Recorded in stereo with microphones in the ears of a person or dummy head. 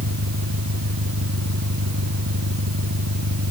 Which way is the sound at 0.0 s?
90° right.